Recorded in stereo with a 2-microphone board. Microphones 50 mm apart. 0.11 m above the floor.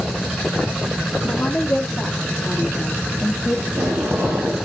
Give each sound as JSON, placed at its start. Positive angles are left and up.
{"t": 1.2, "sound": "a woman speaking", "side_deg": 25, "distance_m": 3.0}
{"t": 3.7, "sound": "tape being pulled", "side_deg": -60, "distance_m": 4.0}